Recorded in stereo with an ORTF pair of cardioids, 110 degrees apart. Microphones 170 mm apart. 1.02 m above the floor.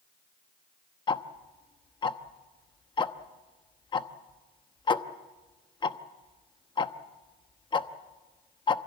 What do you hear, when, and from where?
1.1 s ticking: 25° left, 1.0 m